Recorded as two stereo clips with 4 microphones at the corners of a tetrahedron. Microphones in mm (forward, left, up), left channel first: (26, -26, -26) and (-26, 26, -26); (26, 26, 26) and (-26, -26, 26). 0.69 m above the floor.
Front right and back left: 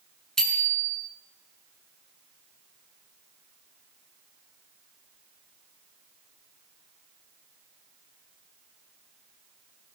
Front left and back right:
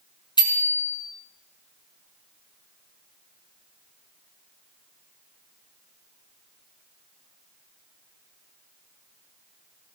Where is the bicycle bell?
40° left, 5 m.